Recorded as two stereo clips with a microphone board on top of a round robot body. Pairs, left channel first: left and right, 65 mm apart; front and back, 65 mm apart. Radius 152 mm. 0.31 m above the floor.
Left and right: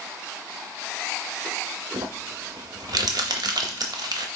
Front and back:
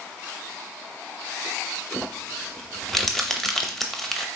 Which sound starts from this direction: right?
Crumpling, at 1.9 s.